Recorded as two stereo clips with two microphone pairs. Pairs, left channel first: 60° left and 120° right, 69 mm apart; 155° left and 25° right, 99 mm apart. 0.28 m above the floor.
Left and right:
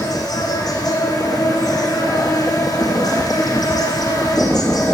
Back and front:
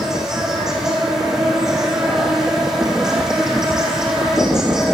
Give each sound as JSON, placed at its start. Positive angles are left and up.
{"t": 0.0, "sound": "an insect", "azimuth_deg": 60, "distance_m": 8.0}